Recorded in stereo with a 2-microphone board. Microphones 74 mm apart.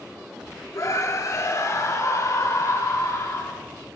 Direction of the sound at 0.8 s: 45° left (ahead or behind).